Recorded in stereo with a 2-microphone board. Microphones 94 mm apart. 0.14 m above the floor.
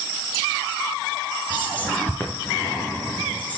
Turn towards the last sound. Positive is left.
turn(degrees=15)  # may be behind; listen again after turning